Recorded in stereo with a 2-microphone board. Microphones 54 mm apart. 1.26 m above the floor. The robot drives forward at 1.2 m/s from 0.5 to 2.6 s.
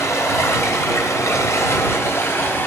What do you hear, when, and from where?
0.0 s running water: 60° left (ahead or behind), 2 m; by 2.7 s 45° left (ahead or behind), 2.5 m